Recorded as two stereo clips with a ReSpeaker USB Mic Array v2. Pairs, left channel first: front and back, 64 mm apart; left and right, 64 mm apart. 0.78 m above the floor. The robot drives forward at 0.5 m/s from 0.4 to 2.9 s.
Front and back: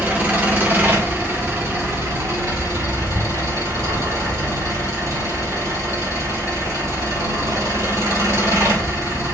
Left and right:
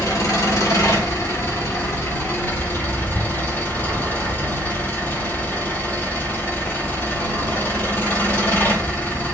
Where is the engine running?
120° left, 1.5 m; by 9.3 s 150° left, 2.5 m.